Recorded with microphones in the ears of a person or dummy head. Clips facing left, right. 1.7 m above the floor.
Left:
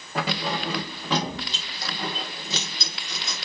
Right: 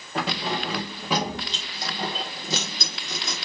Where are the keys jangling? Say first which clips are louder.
Even; centre (ahead or behind), 2.0 m; by 3.5 s 60° right (ahead or behind), 1.2 m.